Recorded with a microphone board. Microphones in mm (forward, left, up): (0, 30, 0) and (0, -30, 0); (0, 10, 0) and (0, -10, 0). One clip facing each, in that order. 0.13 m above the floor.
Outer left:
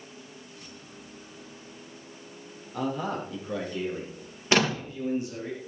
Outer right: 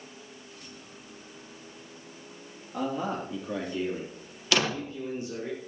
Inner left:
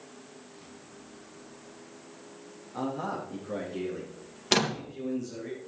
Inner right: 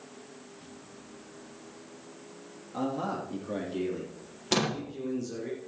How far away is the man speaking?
About 3.5 m.